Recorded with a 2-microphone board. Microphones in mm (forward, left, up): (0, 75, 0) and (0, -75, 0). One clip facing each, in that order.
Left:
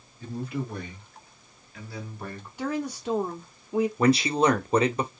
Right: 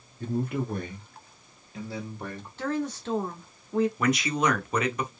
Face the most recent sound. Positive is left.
turn(degrees=30)  # may be behind; listen again after turning